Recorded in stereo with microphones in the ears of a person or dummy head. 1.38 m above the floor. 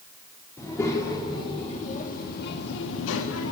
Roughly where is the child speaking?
Centre.